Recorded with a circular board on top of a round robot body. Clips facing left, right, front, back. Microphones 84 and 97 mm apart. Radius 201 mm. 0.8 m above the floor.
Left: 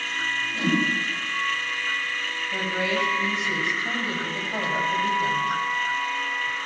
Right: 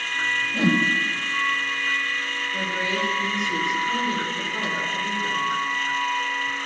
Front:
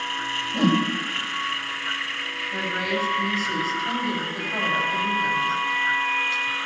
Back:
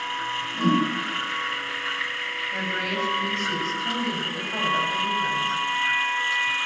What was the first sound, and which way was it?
A whoosh, 25° right.